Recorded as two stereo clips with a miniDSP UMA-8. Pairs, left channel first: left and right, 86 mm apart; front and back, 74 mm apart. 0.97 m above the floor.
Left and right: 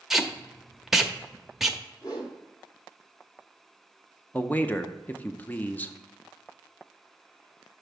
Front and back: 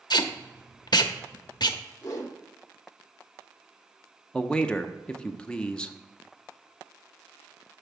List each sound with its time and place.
0.1 s tape being pulled: 5° right, 0.6 m
2.0 s a whoosh: 50° left, 1.7 m
4.3 s a man speaking: 55° left, 0.5 m